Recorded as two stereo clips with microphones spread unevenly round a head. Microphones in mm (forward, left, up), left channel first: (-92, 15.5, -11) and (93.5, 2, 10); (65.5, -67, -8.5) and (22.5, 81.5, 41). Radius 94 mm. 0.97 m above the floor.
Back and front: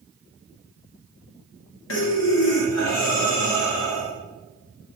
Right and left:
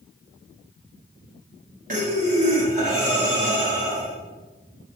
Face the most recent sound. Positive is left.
turn(degrees=160)